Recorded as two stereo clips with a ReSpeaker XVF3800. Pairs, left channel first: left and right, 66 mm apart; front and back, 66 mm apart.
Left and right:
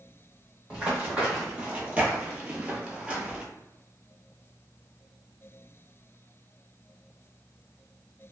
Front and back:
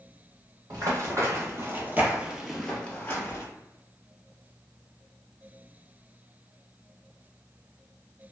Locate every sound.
0.7 s running footsteps: 160° right, 1.5 m; by 3.5 s 15° right, 0.9 m